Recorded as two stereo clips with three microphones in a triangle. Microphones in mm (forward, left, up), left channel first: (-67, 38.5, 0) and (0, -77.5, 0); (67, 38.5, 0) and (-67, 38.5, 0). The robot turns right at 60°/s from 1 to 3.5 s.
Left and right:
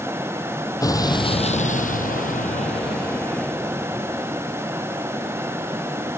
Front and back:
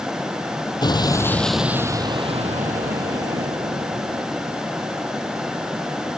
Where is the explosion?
55° left; by 4.2 s 155° right.